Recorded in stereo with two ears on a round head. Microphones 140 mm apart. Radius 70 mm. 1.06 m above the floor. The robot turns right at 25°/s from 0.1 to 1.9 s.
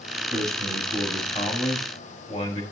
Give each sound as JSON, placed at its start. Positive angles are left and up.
{"t": 0.3, "sound": "a man speaking", "azimuth_deg": -5, "distance_m": 5.5}